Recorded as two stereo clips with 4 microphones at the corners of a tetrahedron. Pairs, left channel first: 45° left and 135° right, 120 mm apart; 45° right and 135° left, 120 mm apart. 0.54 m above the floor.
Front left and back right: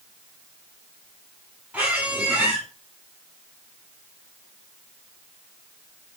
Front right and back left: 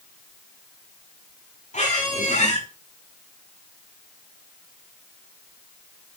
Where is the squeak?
55° right, 7 m.